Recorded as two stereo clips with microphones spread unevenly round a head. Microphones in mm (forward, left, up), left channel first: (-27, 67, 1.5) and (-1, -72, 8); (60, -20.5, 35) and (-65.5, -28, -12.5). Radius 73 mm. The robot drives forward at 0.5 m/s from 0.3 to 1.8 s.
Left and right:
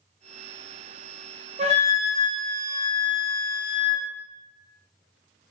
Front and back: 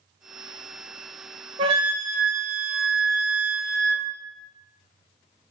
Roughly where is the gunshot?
No gunshot in this recording.